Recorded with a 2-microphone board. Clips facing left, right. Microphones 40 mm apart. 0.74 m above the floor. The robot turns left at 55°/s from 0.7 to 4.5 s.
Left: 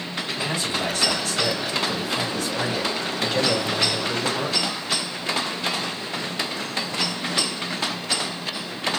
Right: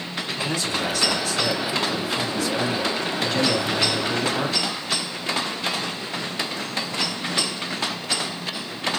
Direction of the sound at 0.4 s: 155° left.